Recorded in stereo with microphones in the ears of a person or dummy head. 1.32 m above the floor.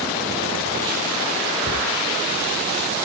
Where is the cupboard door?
40° right (ahead or behind), 2.5 m.